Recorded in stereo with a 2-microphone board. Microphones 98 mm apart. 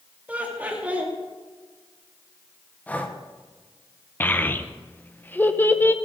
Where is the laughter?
15° right (ahead or behind), 3 m.